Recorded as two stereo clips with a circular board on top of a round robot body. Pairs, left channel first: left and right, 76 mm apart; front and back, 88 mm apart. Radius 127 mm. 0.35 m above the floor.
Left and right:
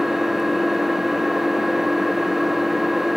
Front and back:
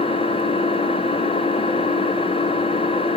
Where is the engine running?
5° right, 0.9 m.